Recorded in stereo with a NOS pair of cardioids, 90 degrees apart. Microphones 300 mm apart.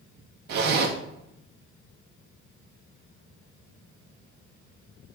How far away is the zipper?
About 1.8 m.